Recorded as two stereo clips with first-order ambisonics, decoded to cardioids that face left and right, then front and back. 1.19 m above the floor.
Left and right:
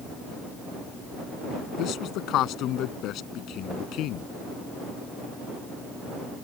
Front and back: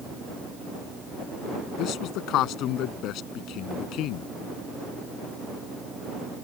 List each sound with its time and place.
1.8 s a man speaking: 45° left